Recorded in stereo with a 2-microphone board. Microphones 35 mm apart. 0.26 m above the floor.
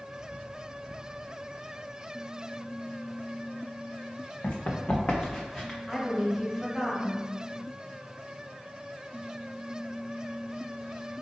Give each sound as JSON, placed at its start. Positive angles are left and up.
{"t": 4.4, "sound": "running footsteps", "side_deg": 65, "distance_m": 1.3}
{"t": 5.9, "sound": "a woman speaking", "side_deg": 5, "distance_m": 1.2}